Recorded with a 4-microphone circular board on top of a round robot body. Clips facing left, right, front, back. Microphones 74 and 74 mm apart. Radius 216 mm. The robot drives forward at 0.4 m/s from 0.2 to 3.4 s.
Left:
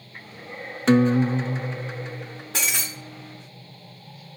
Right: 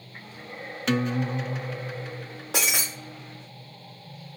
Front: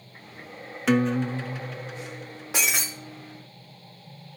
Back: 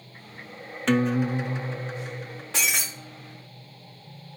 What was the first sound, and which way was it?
A guitar, 75° left.